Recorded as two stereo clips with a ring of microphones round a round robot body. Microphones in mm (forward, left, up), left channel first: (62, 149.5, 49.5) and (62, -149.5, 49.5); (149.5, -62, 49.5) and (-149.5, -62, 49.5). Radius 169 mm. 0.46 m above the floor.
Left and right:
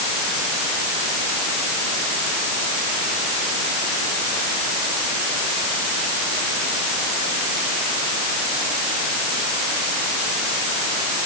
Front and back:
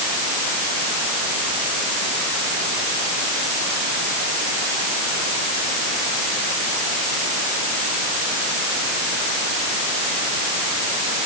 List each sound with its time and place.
Only background noise.